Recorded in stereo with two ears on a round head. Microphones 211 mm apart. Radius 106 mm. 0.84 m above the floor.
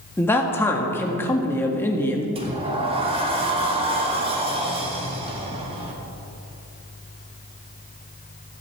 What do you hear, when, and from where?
0.2 s a man speaking: 10° left (ahead or behind), 1.8 m
2.4 s a sliding door: 25° right (ahead or behind), 1.9 m